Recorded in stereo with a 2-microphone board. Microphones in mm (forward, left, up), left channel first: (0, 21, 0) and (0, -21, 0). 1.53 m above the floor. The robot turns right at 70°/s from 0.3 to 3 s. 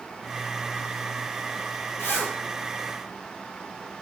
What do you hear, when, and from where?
2.0 s a zipper: 75° left (ahead or behind), 1.0 m; by 2.3 s 60° left (ahead or behind), 1.0 m